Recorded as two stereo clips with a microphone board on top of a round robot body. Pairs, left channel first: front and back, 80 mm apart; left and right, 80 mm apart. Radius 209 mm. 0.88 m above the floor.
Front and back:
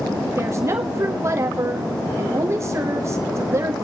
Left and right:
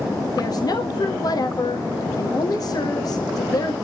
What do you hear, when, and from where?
0.4 s a woman speaking: 125° left, 1.4 m